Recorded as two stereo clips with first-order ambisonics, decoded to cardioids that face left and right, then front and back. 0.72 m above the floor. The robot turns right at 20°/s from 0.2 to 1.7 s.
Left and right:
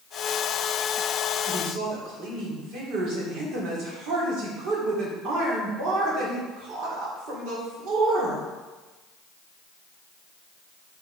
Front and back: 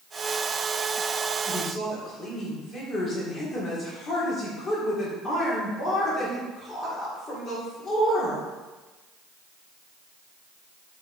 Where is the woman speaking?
65° right, 2 m; by 8.4 s 60° right, 2 m.